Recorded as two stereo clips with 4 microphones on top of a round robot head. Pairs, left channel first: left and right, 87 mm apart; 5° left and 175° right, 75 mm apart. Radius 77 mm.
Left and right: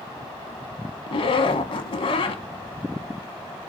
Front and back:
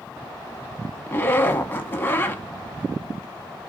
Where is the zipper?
65° left, 0.7 m.